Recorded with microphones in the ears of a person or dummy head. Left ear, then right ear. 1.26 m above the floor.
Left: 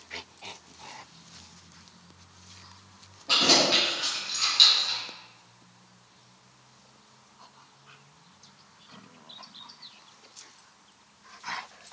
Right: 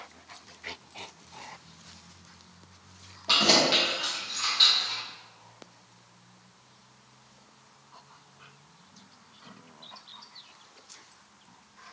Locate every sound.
3.3 s keys jangling: 35° right (ahead or behind), 1.0 m; by 5.0 s 45° left (ahead or behind), 1.3 m